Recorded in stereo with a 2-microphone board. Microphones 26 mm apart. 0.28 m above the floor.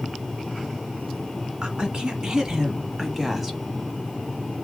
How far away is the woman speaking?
About 2.5 m.